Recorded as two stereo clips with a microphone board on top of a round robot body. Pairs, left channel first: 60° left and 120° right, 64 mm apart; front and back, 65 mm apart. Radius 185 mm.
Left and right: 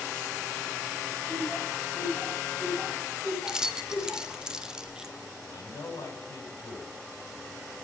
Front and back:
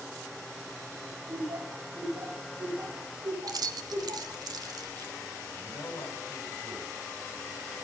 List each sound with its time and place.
1.3 s laughter: 165° left, 5.5 m; by 4.4 s 150° left, 9 m
3.5 s keys jangling: 160° left, 0.7 m
5.5 s a man speaking: 25° left, 6.5 m